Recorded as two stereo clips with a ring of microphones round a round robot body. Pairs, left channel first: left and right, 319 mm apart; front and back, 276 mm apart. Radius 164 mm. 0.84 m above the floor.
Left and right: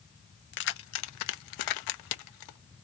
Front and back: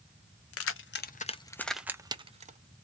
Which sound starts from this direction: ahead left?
Keys jangling, at 0.5 s.